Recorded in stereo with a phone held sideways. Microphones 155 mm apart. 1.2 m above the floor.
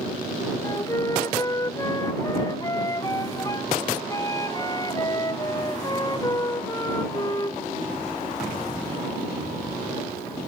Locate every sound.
0.6 s a flute: 20° left (ahead or behind)